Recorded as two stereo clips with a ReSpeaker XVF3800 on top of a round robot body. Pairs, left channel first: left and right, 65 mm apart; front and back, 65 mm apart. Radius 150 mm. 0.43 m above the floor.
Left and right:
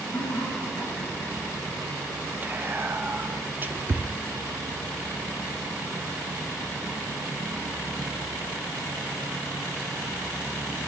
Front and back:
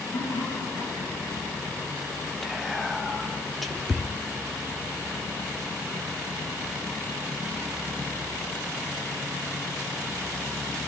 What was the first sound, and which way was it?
Laughter, 30° left.